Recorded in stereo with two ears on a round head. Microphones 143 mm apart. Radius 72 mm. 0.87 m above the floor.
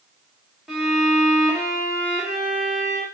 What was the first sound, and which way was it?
A violin, centre (ahead or behind).